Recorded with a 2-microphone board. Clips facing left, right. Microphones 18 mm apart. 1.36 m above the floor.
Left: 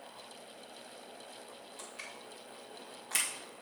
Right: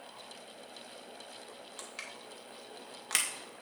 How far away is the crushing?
About 1.8 m.